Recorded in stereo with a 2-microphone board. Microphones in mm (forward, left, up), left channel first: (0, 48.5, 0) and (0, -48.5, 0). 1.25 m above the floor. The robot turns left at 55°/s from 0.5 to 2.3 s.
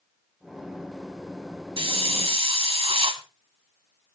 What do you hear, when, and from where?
1.8 s a hiss: 60° right (ahead or behind), 1.5 m; by 3.2 s 75° right (ahead or behind), 1.5 m